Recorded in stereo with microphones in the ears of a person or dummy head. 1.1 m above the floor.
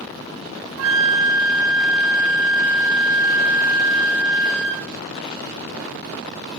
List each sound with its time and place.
0.8 s a flute: 70° right (ahead or behind), 0.6 m